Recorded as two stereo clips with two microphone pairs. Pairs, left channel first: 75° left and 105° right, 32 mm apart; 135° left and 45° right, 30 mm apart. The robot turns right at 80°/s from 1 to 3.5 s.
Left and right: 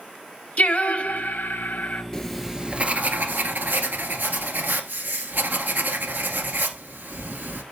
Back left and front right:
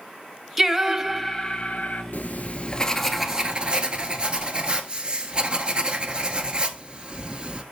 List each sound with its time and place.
0.6 s singing: 35° left, 1.0 m; by 2.0 s 120° left, 1.0 m
2.1 s writing: 150° left, 1.1 m; by 7.6 s 100° right, 1.1 m